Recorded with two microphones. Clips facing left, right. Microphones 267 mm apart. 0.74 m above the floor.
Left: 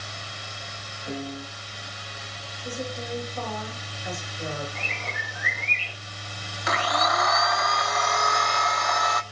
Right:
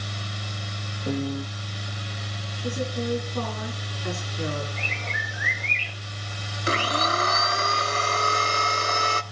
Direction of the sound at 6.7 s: 30° right (ahead or behind).